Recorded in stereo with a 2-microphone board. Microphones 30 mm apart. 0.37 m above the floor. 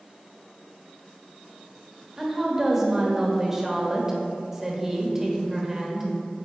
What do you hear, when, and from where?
2.2 s a woman speaking: 15° right (ahead or behind), 1.1 m